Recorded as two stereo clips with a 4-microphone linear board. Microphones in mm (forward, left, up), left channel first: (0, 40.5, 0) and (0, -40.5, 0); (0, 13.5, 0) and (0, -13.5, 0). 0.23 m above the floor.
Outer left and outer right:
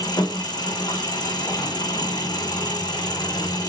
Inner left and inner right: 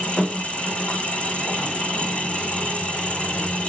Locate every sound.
0.0 s an engine running: 60° left (ahead or behind), 3 m